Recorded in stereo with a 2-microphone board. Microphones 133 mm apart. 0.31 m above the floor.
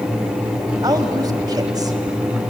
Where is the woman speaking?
30° right (ahead or behind), 1.5 m.